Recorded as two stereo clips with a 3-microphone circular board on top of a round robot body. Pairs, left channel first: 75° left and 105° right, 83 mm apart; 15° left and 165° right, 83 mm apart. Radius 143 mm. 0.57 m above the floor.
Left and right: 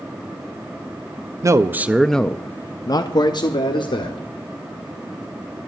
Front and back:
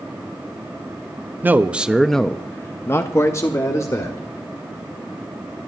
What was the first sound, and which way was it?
A man speaking, 110° right.